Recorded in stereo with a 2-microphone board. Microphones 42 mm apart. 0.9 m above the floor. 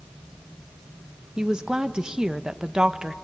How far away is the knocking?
I don't hear knocking.